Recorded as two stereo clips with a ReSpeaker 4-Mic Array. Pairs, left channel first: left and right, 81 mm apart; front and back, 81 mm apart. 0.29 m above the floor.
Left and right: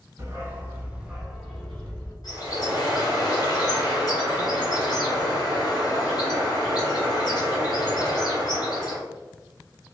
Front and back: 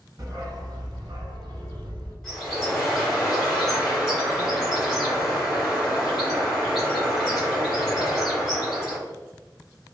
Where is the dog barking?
145° right, 1.1 m; by 2.1 s 160° left, 1.1 m.